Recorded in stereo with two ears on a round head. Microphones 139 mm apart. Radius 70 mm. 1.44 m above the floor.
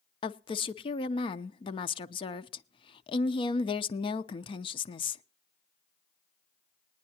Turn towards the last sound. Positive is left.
turn(degrees=35)  # may be behind; listen again after turning